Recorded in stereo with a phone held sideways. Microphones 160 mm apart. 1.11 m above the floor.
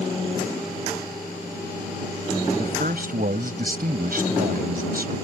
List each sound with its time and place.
2.6 s a man speaking: 65° right (ahead or behind)